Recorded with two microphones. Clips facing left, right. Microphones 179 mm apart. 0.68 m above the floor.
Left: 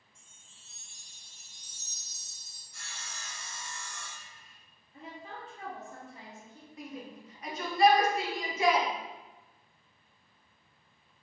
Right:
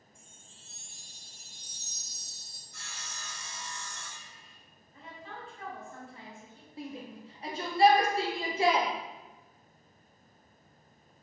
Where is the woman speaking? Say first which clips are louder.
Left 1 dB; 40° left (ahead or behind), 1.1 m.